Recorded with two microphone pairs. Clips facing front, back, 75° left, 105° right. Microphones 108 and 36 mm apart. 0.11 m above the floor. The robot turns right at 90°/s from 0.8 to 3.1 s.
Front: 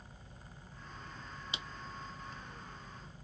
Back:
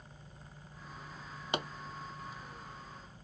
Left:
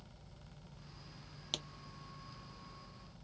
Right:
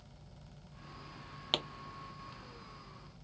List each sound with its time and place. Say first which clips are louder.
1.5 s a pop: back 13 dB, right 8 dB; 150° right; by 1.7 s 140° right